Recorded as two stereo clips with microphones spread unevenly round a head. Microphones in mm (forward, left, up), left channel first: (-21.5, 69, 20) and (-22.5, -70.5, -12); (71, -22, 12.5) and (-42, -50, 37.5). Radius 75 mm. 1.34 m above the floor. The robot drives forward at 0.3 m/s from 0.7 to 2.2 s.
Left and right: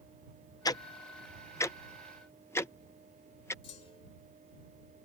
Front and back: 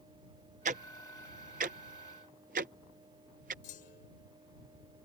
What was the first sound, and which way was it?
Ticking, 155° left.